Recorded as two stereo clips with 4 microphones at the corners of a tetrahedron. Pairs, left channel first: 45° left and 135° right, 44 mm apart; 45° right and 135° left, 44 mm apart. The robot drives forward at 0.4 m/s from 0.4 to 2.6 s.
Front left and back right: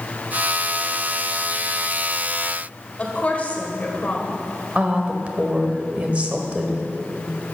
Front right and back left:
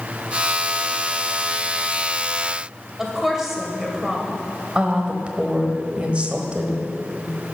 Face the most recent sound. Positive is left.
turn(degrees=-175)